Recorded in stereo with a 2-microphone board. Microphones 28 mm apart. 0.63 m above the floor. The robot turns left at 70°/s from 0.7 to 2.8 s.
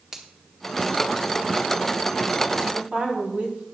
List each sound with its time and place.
0.1 s a finger snap: 10° right (ahead or behind), 1.5 m
2.7 s a woman speaking: 50° right (ahead or behind), 4 m; by 3.6 s 45° right (ahead or behind), 4 m